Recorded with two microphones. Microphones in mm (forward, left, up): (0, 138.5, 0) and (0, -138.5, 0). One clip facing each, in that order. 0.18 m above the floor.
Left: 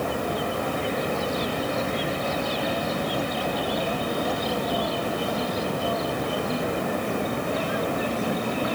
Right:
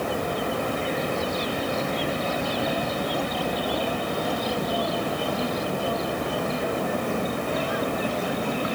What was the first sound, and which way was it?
Only background noise.